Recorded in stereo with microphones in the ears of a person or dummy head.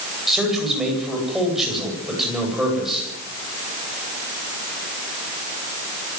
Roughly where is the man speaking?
Centre.